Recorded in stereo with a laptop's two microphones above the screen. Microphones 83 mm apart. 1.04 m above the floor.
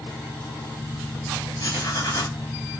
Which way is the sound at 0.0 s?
10° left (ahead or behind).